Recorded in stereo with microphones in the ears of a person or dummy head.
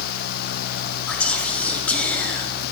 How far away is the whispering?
About 0.7 m.